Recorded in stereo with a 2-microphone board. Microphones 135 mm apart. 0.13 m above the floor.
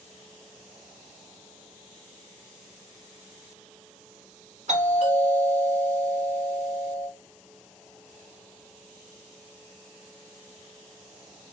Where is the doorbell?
60° right (ahead or behind), 3 m.